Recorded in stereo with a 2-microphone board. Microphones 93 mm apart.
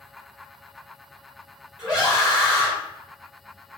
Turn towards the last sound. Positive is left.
turn(degrees=-10)  # may be behind; listen again after turning